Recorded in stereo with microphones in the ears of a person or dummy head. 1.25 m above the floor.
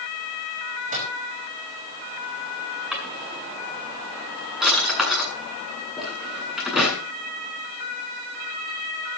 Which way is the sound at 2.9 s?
Centre (ahead or behind).